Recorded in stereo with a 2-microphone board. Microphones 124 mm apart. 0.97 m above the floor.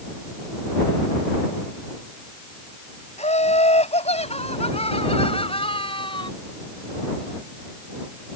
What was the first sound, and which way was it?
Laughter, 65° left (ahead or behind).